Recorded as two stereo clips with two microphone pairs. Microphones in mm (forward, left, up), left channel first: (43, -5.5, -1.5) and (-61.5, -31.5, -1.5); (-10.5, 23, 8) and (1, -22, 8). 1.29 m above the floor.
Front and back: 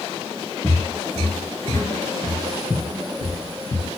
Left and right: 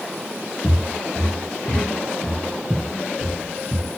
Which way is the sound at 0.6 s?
100° left.